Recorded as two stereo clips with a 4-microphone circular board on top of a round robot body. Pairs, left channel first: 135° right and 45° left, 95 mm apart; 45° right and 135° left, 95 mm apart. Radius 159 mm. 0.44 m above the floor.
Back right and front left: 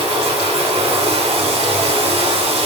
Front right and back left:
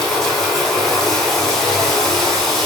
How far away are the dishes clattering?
No dishes clattering in this recording.